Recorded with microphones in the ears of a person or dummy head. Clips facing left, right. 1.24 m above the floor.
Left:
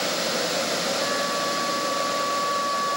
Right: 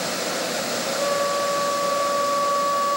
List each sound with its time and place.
1.0 s a flute: 45° right (ahead or behind), 1.0 m